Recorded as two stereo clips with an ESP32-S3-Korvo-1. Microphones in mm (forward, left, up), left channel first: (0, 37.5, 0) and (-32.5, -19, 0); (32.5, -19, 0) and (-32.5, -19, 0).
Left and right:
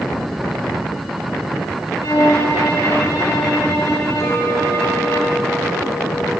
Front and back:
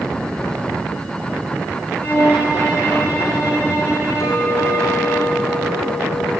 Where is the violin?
50° left, 4.5 m.